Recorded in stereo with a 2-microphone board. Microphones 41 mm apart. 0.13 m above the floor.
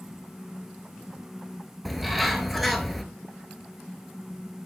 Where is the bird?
Centre (ahead or behind), 0.7 m.